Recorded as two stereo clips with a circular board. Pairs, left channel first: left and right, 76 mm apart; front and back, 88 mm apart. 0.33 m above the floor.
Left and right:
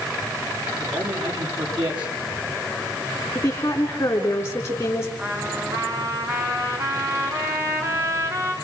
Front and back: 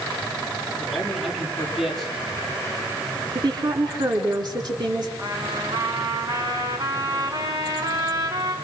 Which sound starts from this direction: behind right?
A trumpet, at 5.2 s.